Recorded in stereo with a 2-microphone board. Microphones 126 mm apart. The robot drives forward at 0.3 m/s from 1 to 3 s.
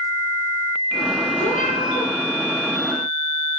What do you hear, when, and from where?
1.4 s a cat meowing: 80° left, 2.5 m; by 2.1 s 75° left (ahead or behind), 2.5 m